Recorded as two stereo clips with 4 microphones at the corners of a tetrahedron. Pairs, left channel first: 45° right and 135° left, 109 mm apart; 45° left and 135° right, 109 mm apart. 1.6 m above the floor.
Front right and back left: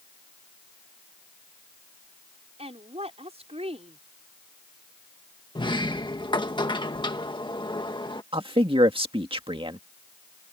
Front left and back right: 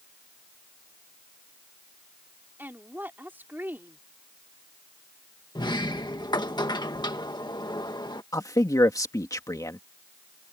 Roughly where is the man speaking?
Left.